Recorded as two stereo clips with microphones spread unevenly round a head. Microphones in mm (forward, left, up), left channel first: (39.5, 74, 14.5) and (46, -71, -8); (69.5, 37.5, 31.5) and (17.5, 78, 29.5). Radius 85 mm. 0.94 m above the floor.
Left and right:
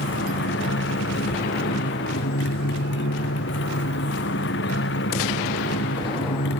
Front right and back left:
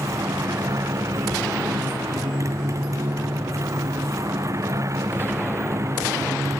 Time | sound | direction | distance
0.0 | a motorcycle | 100° left | ?